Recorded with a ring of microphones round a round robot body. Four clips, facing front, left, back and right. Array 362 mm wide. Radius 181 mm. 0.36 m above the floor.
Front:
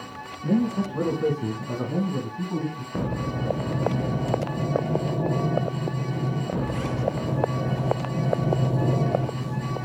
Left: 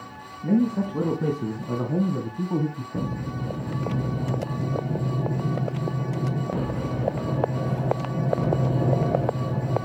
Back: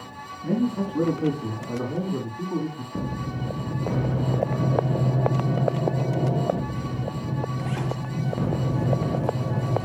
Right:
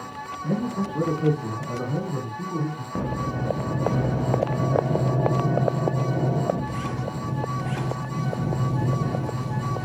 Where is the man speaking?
70° left, 4 m; by 3.2 s 90° left, 2.5 m.